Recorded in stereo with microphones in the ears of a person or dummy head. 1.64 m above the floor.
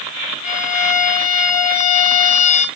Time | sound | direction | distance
0.4 | a violin | 35° left (ahead or behind) | 0.8 m